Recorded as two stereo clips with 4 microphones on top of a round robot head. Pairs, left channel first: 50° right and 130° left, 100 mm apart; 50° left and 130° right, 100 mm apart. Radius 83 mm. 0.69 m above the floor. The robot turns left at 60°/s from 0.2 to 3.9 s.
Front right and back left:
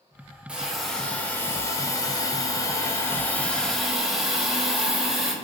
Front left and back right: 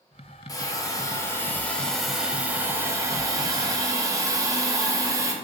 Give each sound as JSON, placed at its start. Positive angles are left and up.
{"t": 0.5, "sound": "a hiss", "azimuth_deg": 55, "distance_m": 0.6}